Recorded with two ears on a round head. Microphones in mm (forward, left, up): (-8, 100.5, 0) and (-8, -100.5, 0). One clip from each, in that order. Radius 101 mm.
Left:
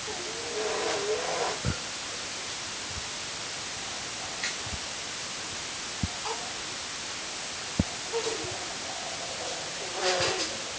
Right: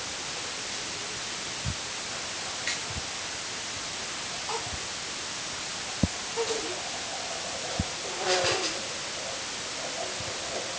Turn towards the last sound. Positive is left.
No sound to turn to.